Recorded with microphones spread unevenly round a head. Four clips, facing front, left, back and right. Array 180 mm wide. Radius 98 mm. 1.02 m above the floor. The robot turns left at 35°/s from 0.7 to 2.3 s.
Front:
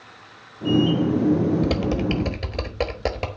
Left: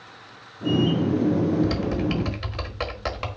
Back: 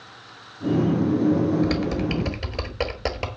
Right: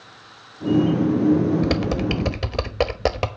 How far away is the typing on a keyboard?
About 1.1 m.